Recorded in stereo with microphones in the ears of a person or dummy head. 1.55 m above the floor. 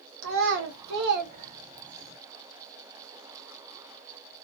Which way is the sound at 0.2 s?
70° right (ahead or behind).